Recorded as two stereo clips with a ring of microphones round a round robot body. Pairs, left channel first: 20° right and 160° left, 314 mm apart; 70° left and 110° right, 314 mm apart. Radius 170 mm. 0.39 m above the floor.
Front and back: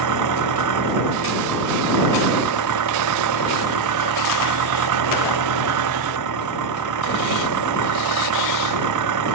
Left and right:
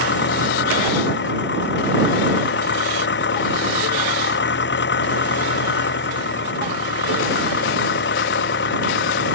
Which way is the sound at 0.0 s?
125° left.